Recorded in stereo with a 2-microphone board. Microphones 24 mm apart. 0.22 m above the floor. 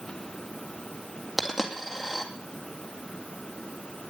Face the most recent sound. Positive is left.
turn(degrees=-5)  # may be behind; listen again after turning